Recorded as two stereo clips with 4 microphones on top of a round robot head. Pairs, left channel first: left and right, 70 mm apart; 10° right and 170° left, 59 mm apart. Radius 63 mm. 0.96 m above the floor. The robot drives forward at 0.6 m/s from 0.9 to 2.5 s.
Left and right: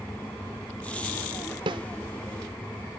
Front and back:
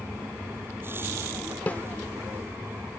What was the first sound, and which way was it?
A snare drum, 80° right.